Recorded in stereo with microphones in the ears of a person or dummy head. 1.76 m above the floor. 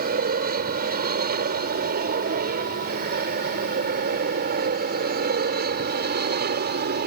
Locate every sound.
0.0 s an aircraft: 50° right (ahead or behind)